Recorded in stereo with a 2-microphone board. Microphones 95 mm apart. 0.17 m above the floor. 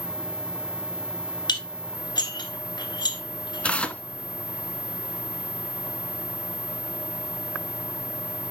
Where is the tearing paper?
15° left (ahead or behind), 0.8 m.